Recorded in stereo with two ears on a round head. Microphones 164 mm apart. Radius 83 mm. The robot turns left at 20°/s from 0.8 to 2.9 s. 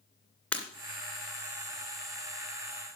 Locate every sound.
0.5 s breaking glass: 5° left (ahead or behind), 2 m